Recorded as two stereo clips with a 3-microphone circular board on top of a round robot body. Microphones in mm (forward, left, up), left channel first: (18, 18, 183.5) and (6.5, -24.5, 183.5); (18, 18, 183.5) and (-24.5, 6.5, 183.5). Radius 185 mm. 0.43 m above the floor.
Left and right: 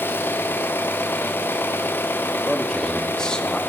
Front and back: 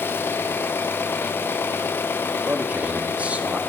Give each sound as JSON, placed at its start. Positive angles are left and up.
{"t": 0.0, "sound": "an engine running", "azimuth_deg": 45, "distance_m": 0.8}
{"t": 2.5, "sound": "a man speaking", "azimuth_deg": 145, "distance_m": 1.1}